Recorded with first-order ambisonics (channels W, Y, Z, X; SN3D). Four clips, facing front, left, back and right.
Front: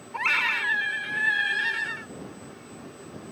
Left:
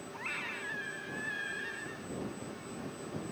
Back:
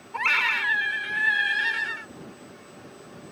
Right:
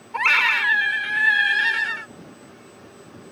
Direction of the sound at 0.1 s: 95° right.